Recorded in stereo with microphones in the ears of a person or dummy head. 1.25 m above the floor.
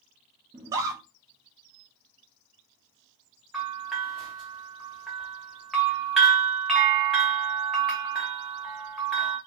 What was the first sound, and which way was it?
A scream, 15° right (ahead or behind).